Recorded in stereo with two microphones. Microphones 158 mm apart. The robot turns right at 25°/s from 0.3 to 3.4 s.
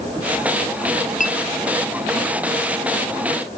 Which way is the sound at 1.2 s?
55° left (ahead or behind).